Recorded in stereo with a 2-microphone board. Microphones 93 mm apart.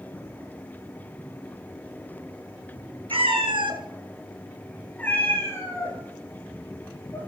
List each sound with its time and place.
3.1 s a cat meowing: 80° right, 1.7 m; by 7.2 s 35° left (ahead or behind), 5 m